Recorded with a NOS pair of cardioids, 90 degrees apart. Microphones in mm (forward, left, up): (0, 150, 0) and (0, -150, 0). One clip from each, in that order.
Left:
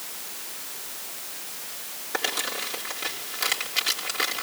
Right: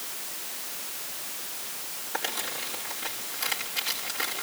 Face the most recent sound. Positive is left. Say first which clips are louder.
# left 4 dB
turn(degrees=40)